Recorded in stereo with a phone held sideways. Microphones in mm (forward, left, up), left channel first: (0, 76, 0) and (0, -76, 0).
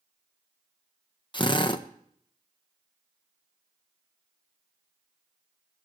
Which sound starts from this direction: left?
A drill, at 1.3 s.